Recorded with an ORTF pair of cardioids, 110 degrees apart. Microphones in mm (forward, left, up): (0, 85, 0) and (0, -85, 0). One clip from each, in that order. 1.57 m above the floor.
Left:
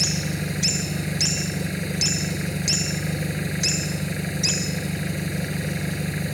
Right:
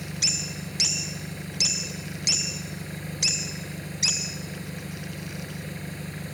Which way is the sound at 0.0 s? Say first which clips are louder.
Left 1 dB; 50° left.